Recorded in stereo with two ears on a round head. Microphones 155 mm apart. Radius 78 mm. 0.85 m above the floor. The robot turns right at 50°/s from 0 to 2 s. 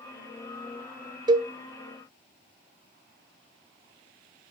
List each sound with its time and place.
1.3 s a cowbell: 25° right (ahead or behind), 0.5 m; by 1.5 s 15° right (ahead or behind), 0.5 m